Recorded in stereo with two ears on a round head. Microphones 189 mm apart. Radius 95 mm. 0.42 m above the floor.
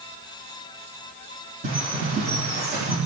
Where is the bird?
45° right (ahead or behind), 9 m.